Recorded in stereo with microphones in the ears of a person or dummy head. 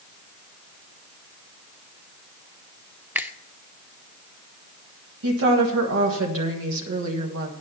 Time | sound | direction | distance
3.1 | a finger snap | 10° right (ahead or behind) | 0.6 m
5.2 | a woman speaking | 65° right (ahead or behind) | 1.6 m